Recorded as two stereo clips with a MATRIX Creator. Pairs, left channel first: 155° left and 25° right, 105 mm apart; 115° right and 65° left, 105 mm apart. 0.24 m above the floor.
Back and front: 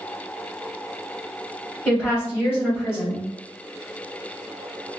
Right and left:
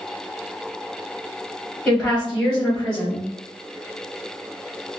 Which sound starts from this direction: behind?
A woman speaking, at 1.9 s.